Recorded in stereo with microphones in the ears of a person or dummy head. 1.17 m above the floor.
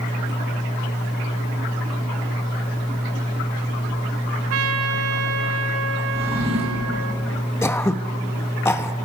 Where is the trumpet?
80° right, 1.0 m.